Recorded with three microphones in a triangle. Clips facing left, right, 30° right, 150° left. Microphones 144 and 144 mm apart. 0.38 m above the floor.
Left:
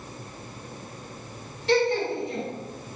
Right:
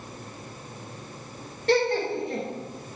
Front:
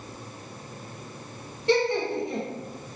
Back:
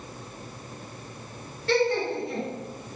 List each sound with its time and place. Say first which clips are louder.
1.7 s laughter: even, even; 95° right, 1.7 m